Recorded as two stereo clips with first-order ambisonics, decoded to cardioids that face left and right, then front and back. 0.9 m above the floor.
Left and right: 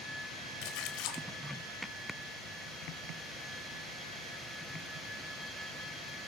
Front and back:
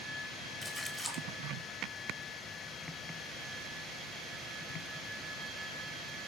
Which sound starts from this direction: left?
A splash, at 0.6 s.